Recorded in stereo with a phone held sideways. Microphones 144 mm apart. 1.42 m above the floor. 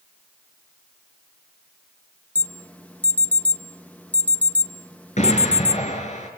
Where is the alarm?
10° left (ahead or behind), 1.1 m.